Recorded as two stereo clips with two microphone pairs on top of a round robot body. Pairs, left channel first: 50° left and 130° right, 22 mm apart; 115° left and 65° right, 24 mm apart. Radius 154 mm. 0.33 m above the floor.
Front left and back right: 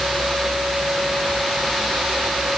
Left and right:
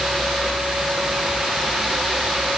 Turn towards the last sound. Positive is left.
No sound to turn to.